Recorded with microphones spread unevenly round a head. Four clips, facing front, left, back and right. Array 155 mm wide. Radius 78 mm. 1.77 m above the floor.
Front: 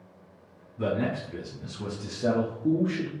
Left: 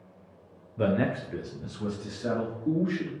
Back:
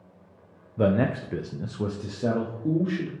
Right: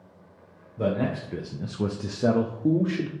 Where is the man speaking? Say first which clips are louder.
Even, back 5 dB; 170° left, 0.6 m; by 3.1 s 85° right, 1.0 m.